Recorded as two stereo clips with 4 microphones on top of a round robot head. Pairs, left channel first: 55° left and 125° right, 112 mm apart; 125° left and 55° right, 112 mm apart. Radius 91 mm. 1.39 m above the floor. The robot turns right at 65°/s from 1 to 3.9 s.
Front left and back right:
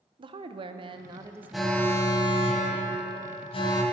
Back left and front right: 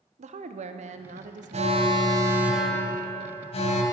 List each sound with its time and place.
0.2 s a woman speaking: 80° right, 0.7 m; by 1.8 s 30° right, 0.7 m
1.5 s an alarm: 40° right, 1.6 m; by 3.8 s 110° left, 1.6 m